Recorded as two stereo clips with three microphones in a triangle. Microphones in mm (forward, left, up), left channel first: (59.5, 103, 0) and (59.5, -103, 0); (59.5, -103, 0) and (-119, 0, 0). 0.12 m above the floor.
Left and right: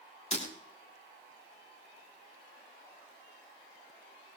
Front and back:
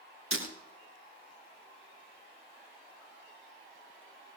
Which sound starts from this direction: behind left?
Breaking glass, at 0.3 s.